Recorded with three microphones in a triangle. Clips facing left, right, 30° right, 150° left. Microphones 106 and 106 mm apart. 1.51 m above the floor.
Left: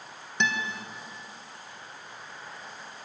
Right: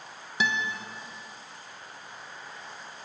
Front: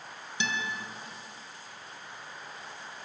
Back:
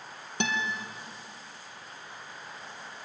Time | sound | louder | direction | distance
0.4 | a guitar | even, back 3 dB | 175° right | 2 m